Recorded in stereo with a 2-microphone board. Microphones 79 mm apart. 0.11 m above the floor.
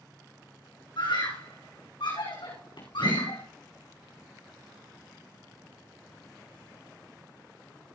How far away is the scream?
About 6.5 m.